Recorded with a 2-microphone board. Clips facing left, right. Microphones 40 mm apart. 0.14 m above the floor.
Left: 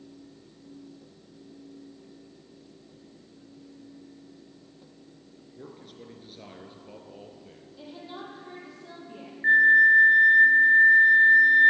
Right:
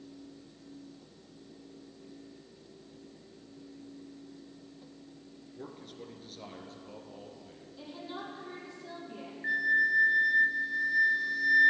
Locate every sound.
5.6 s a man speaking: 5° right (ahead or behind), 1.8 m; by 7.7 s 30° left (ahead or behind), 2.5 m
7.8 s a woman speaking: 10° left (ahead or behind), 5 m
9.4 s a flute: 35° left (ahead or behind), 0.7 m